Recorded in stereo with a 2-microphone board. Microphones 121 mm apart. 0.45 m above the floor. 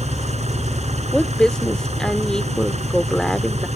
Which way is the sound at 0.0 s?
65° right (ahead or behind).